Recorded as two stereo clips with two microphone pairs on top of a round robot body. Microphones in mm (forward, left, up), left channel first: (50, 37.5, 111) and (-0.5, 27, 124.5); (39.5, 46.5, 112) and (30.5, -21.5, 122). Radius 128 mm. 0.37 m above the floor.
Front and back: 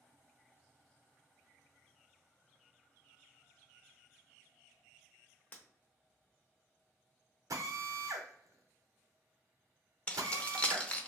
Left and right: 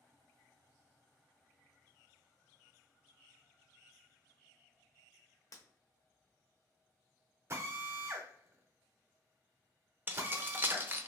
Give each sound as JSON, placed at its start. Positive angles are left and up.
{"t": 5.5, "sound": "breaking glass", "azimuth_deg": 60, "distance_m": 1.0}
{"t": 7.5, "sound": "a drill", "azimuth_deg": -150, "distance_m": 0.6}
{"t": 10.1, "sound": "keys jangling", "azimuth_deg": -35, "distance_m": 0.7}